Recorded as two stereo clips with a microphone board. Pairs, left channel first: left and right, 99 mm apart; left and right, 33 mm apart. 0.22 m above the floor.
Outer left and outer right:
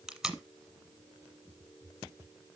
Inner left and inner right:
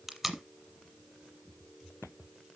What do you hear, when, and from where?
0.1 s tape being pulled: 5° right (ahead or behind), 1.2 m